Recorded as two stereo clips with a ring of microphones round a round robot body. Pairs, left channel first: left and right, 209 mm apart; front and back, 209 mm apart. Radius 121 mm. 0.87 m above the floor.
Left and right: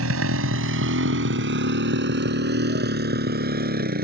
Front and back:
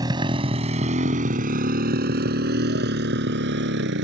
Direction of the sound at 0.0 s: 105° right.